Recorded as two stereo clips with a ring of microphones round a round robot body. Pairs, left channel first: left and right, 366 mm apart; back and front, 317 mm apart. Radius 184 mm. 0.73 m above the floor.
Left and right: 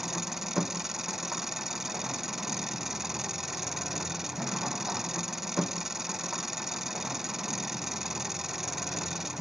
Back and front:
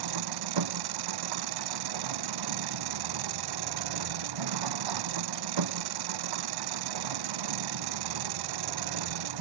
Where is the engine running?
Straight ahead.